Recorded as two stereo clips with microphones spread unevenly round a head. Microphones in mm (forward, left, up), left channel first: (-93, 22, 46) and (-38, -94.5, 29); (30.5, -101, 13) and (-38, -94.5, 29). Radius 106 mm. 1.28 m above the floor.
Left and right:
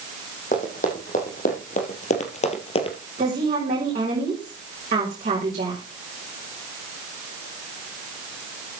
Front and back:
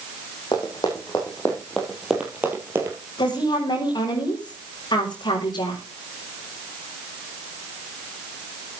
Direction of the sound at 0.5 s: 65° left.